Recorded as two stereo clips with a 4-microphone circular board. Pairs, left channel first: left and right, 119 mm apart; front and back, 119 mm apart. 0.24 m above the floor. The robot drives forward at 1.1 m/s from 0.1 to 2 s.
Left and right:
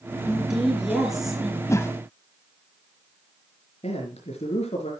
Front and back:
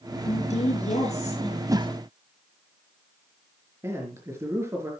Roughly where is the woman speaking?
Ahead.